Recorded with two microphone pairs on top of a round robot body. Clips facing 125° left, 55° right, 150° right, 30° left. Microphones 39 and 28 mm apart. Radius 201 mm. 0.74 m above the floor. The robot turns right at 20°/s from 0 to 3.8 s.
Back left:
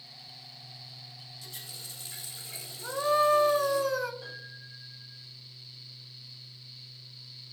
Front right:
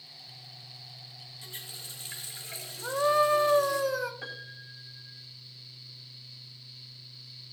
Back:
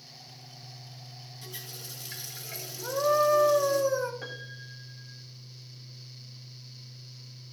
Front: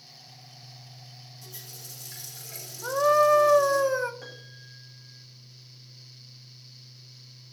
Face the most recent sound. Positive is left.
turn(degrees=-80)